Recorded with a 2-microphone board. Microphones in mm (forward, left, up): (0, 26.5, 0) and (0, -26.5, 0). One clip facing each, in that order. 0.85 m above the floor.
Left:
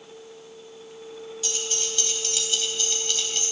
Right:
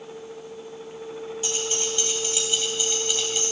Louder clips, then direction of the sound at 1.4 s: Right 3 dB; 30° right (ahead or behind).